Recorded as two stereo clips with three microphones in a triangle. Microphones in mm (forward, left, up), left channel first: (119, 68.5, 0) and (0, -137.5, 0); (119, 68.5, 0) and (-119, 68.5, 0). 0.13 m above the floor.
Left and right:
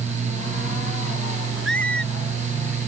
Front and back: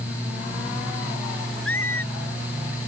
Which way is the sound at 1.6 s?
25° left.